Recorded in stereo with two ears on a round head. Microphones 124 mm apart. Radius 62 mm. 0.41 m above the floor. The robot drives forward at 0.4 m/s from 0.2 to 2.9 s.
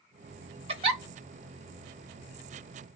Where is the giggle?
45° right (ahead or behind), 0.8 m; by 1.0 s 40° right (ahead or behind), 0.9 m.